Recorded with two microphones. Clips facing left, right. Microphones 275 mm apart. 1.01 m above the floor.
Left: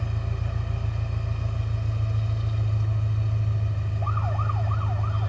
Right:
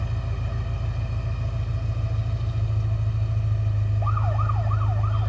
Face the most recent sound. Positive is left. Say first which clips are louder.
# even
turn(degrees=30)  # may be behind; listen again after turning